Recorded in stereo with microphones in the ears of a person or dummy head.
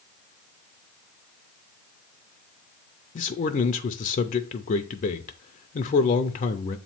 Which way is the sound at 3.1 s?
35° left (ahead or behind).